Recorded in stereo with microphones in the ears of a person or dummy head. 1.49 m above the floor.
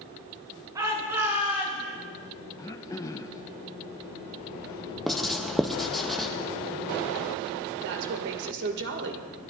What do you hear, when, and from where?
0.8 s a shout: 20° right (ahead or behind), 3.5 m; by 1.8 s 5° right (ahead or behind), 4 m
2.6 s throat clearing: 15° left (ahead or behind), 0.7 m
5.1 s writing: centre (ahead or behind), 0.7 m
7.8 s a woman speaking: 65° right (ahead or behind), 2 m